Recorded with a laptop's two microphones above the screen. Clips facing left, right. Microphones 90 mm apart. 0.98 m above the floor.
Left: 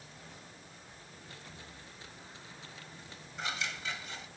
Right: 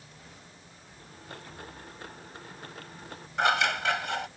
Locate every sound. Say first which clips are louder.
1.0 s a blender: right 9 dB; 55° right (ahead or behind)
3.4 s scissors: right 14 dB; 75° right (ahead or behind)